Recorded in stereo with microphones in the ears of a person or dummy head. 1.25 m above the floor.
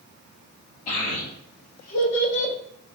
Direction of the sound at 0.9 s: 50° left (ahead or behind).